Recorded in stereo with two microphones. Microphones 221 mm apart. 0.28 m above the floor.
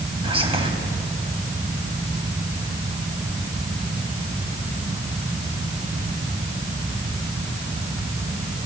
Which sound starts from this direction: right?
Whispering, at 0.2 s.